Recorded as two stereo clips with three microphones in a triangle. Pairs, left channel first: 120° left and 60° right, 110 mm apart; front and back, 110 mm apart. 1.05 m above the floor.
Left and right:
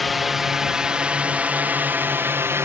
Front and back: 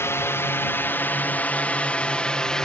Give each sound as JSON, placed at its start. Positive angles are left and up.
{"t": 0.0, "sound": "a drone", "azimuth_deg": 30}